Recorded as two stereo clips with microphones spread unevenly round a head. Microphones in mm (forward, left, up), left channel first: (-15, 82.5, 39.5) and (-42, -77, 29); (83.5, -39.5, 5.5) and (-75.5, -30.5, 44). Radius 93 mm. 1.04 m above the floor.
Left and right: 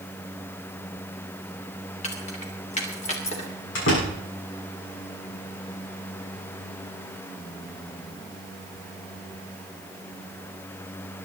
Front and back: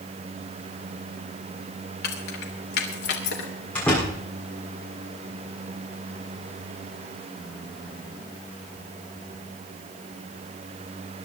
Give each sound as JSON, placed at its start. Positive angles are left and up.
{"t": 2.0, "sound": "keys jangling", "azimuth_deg": 25, "distance_m": 3.0}
{"t": 3.8, "sound": "a door slam", "azimuth_deg": 80, "distance_m": 7.5}